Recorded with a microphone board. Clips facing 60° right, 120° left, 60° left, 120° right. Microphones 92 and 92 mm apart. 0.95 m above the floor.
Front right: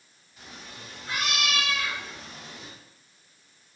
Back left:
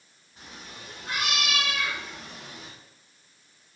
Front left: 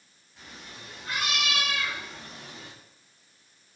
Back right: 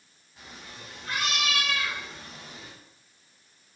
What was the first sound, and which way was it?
A cat meowing, 160° left.